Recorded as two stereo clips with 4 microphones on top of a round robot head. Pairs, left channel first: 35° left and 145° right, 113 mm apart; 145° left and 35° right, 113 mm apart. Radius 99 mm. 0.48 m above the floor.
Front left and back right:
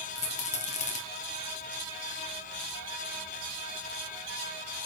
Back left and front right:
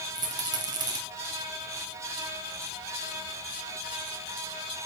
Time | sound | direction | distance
0.1 | a rattle | 20° left | 2.5 m